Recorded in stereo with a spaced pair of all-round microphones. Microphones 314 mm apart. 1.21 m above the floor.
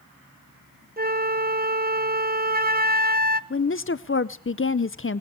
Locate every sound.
1.0 s a flute: 30° right (ahead or behind), 0.7 m
3.5 s a woman speaking: 40° left (ahead or behind), 0.5 m